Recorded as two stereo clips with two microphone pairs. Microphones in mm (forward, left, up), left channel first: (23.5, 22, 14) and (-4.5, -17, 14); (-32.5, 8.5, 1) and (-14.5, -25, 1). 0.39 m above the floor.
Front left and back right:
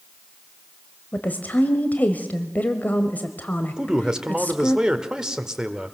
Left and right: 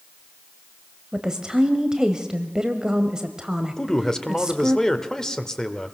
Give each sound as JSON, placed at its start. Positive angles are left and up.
{"t": 1.1, "sound": "a woman speaking", "azimuth_deg": 5, "distance_m": 1.5}
{"t": 3.8, "sound": "a man speaking", "azimuth_deg": 175, "distance_m": 1.5}